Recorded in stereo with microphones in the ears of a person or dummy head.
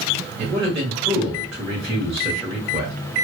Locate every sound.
0.4 s a man speaking: 25° right (ahead or behind), 1.5 m